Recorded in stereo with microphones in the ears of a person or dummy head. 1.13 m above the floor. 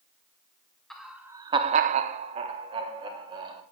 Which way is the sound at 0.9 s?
5° left (ahead or behind).